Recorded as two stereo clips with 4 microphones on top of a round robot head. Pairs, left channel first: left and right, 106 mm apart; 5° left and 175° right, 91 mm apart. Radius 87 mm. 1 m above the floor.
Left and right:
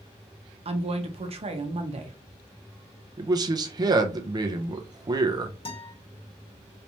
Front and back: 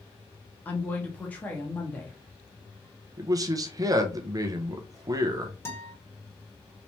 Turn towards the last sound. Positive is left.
turn(degrees=65)